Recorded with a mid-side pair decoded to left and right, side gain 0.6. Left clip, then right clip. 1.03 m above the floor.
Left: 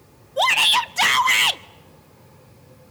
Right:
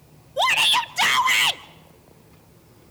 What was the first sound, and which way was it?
A shout, 10° left.